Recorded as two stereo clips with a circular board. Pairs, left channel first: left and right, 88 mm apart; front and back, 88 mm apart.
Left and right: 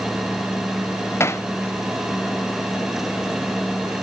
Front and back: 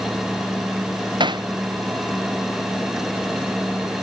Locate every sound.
1.2 s hammering: 150° left